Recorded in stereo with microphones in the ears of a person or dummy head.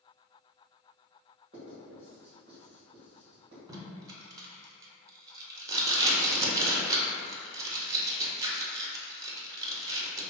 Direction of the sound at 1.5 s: 30° right (ahead or behind).